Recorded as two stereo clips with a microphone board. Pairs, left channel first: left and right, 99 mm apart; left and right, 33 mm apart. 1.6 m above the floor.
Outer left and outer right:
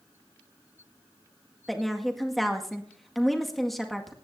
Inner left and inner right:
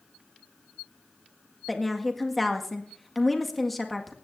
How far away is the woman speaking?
About 1.9 m.